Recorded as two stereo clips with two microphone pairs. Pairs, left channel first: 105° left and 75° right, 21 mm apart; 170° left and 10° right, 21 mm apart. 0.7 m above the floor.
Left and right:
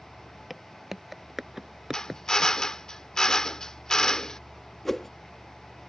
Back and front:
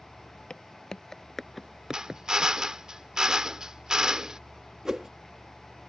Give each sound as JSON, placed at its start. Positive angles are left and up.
{"t": 0.5, "sound": "footsteps", "azimuth_deg": -160}
{"t": 1.9, "sound": "a drill", "azimuth_deg": 45}
{"t": 4.8, "sound": "a whoosh", "azimuth_deg": 30}